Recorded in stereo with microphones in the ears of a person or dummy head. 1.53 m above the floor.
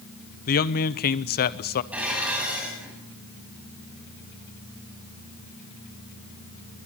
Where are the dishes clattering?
5° right (ahead or behind), 7.5 m.